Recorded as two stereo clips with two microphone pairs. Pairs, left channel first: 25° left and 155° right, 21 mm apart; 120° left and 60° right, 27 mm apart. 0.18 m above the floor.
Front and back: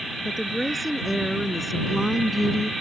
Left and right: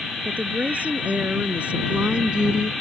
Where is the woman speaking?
60° right; by 2.7 s 75° right.